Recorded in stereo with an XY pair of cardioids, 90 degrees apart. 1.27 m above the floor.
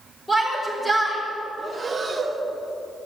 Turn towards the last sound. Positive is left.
turn(degrees=-30)